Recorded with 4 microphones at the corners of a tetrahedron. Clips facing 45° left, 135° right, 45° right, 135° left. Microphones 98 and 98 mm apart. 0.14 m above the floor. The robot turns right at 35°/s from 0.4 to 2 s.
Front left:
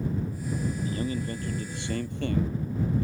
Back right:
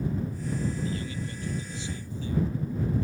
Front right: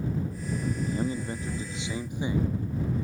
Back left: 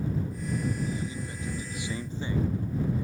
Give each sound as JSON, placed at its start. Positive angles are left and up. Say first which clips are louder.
{"t": 0.8, "sound": "a man speaking", "louder": "front left 3 dB, front right 4 dB", "azimuth_deg": -10}